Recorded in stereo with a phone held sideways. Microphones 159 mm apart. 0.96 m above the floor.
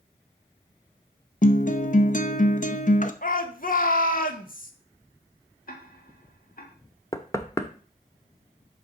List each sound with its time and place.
1.4 s a guitar: 55° left (ahead or behind), 0.7 m
3.2 s a shout: 60° left (ahead or behind), 1.4 m
5.7 s ticking: 60° left (ahead or behind), 1.6 m
7.1 s knocking: 20° left (ahead or behind), 0.8 m